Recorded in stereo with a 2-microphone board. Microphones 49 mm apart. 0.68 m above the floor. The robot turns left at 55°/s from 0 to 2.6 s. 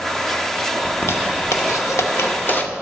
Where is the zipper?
45° left (ahead or behind), 0.8 m; by 2.7 s 40° left (ahead or behind), 0.8 m.